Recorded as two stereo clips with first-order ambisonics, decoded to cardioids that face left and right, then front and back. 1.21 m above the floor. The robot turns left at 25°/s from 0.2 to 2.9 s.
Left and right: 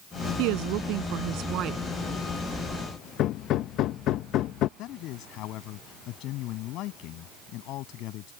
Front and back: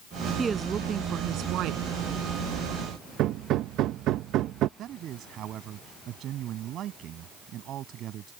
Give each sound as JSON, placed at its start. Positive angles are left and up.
{"t": 0.4, "sound": "a woman speaking", "azimuth_deg": -105}
{"t": 3.2, "sound": "hammering", "azimuth_deg": 135}
{"t": 4.8, "sound": "a man speaking", "azimuth_deg": 130}